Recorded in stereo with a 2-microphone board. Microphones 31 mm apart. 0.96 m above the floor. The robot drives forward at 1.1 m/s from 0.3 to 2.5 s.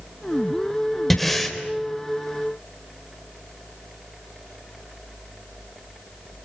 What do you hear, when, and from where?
1.1 s breathing: 5° left (ahead or behind), 3.5 m